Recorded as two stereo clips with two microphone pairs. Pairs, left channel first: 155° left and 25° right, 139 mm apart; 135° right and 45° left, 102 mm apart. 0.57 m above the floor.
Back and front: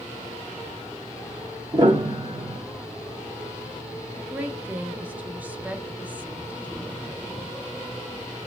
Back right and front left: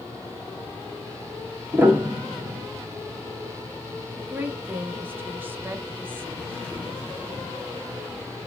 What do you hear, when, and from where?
1.7 s a piano: 15° right, 1.2 m
4.2 s a woman speaking: 25° left, 0.7 m